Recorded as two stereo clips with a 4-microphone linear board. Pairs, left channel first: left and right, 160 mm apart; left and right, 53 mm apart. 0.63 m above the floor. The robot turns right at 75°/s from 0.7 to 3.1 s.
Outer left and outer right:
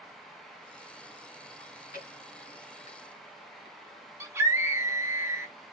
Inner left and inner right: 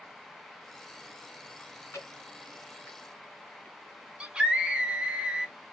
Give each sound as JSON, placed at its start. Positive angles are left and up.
{"t": 1.6, "sound": "chewing", "side_deg": 35, "distance_m": 1.6}
{"t": 4.2, "sound": "a scream", "side_deg": -15, "distance_m": 0.7}